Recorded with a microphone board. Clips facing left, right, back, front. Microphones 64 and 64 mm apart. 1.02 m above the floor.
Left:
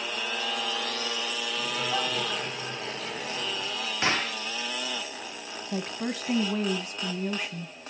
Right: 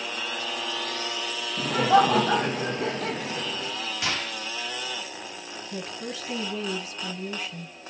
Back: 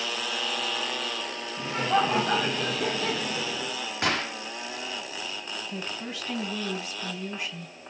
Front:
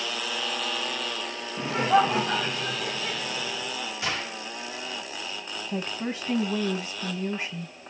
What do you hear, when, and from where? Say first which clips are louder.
1.6 s laughter: right 12 dB, front 4 dB; 60° right, 0.6 m; by 3.8 s 145° right, 1.2 m
4.0 s a gunshot: left 5 dB, back 5 dB; 145° left, 1.2 m
5.7 s a woman speaking: left 4 dB, front 8 dB; 55° left, 1.1 m